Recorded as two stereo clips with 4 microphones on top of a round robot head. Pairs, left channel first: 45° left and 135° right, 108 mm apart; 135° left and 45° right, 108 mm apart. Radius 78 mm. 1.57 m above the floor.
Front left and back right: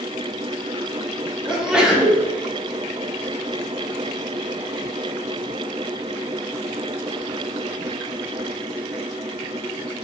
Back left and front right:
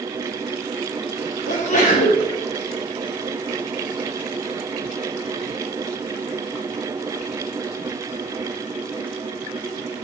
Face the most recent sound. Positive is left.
turn(degrees=140)